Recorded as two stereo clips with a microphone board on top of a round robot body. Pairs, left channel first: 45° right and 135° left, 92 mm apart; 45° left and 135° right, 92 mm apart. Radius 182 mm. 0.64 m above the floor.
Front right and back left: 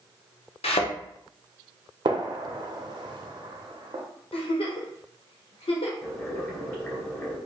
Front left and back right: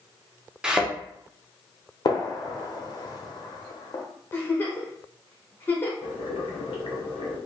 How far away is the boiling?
About 2.0 m.